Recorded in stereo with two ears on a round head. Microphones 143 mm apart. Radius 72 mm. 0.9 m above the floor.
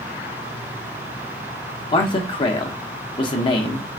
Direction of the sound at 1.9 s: 30° left (ahead or behind).